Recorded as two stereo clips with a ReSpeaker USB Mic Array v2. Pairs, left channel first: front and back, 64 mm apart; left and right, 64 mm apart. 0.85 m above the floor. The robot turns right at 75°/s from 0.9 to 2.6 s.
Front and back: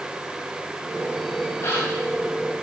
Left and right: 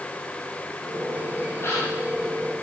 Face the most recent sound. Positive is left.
turn(degrees=115)